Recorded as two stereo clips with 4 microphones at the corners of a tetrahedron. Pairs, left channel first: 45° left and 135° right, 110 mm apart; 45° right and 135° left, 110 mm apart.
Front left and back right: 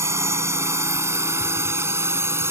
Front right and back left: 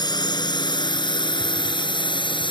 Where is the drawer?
No drawer in this recording.